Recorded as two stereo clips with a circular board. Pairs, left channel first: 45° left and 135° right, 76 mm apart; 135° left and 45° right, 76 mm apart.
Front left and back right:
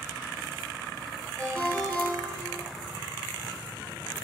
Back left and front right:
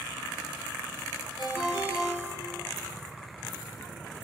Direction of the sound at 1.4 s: 120° left.